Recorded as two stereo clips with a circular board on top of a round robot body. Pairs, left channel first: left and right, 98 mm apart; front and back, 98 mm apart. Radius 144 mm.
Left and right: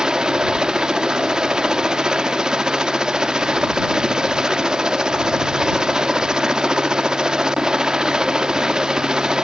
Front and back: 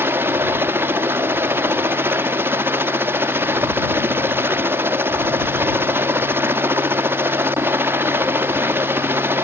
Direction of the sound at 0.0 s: 160° right.